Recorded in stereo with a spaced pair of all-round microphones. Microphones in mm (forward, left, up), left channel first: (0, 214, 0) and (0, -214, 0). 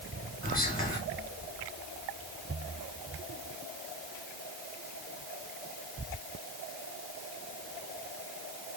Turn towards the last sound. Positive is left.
turn(degrees=20)  # may be behind; listen again after turning